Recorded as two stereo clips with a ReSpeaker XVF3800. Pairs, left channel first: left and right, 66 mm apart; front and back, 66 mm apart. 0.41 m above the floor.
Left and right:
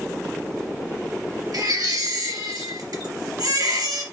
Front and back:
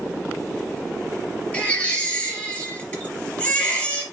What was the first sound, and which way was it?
A baby crying, 70° right.